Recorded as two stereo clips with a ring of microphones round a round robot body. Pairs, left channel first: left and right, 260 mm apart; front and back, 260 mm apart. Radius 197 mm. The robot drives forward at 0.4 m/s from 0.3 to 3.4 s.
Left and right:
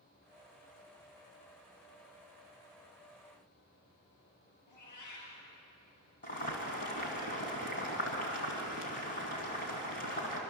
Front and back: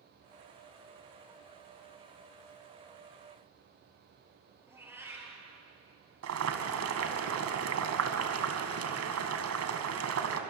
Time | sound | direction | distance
4.7 | a cat meowing | 100° left | 6 m
6.2 | boiling | 155° left | 2.5 m